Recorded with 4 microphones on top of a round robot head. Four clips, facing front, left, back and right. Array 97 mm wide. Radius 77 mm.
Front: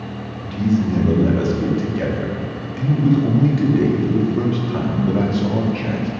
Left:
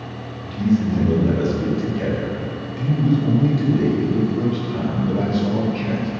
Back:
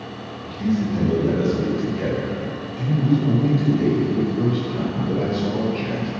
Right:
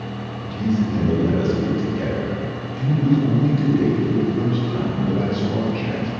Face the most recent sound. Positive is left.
turn(degrees=-5)